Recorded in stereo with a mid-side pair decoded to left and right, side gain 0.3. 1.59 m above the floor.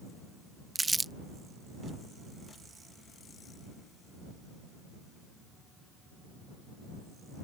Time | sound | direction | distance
0.8 | crumpling | 25° right | ?